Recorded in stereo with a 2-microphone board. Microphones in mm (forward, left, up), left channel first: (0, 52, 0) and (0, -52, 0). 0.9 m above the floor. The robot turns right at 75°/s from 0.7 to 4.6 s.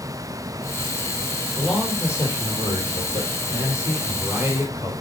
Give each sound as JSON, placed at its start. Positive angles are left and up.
{"t": 1.6, "sound": "a man speaking", "azimuth_deg": -15, "distance_m": 3.5}